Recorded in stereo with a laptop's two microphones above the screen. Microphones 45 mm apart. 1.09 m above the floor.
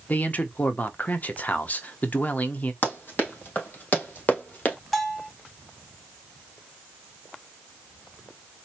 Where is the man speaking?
40° left (ahead or behind), 0.7 m.